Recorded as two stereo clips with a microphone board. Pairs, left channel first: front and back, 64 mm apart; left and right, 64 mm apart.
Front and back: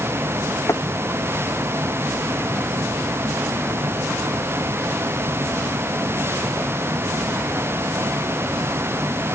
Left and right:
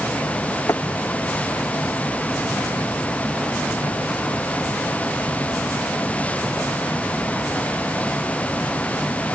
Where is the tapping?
45° left.